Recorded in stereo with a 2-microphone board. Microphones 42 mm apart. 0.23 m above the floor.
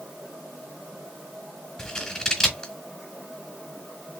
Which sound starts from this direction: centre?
Scissors, at 1.8 s.